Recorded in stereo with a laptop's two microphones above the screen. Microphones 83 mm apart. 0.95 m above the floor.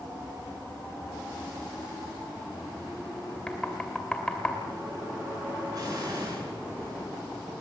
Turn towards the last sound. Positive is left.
turn(degrees=-50)  # may be behind; listen again after turning